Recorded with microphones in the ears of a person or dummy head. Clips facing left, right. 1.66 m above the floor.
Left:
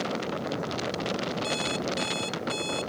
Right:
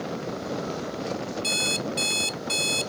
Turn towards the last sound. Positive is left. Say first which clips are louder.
# even
turn(degrees=-30)  # may be behind; listen again after turning